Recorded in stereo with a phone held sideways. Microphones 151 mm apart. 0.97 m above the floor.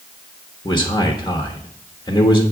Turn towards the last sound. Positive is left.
turn(degrees=25)  # may be behind; listen again after turning